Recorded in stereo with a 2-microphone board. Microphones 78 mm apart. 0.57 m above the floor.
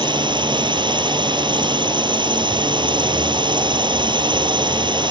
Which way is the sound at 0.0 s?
80° right.